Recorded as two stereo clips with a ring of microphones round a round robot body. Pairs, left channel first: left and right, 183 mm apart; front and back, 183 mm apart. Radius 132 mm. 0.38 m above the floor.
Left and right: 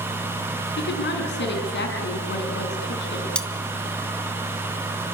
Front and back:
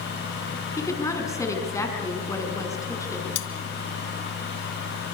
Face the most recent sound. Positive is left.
turn(degrees=5)